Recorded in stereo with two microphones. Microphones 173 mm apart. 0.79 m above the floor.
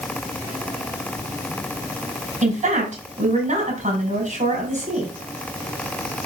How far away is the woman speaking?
About 5.5 m.